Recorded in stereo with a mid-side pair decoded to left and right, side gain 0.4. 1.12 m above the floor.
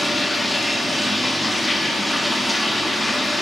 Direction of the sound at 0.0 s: 5° left.